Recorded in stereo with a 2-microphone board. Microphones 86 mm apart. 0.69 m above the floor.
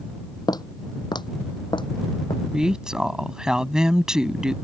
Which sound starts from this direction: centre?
A woman speaking, at 2.5 s.